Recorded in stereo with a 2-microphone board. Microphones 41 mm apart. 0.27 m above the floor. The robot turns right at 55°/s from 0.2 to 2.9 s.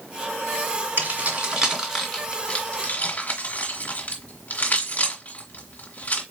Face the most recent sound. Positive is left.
turn(degrees=45)  # may be behind; listen again after turning